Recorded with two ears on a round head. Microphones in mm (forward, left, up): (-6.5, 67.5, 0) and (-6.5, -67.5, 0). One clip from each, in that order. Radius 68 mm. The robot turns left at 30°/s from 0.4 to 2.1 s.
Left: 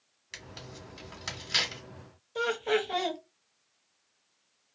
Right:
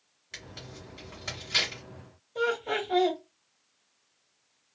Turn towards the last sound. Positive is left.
turn(degrees=45)  # may be behind; listen again after turning